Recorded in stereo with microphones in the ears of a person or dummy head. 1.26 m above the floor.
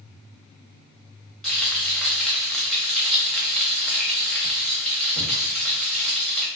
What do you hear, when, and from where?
1.4 s frying: centre (ahead or behind), 0.7 m